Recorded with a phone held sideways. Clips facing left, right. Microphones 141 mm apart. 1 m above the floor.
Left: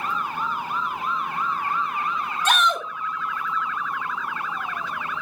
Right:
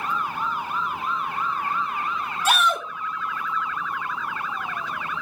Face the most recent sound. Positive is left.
turn(degrees=-10)  # may be behind; listen again after turning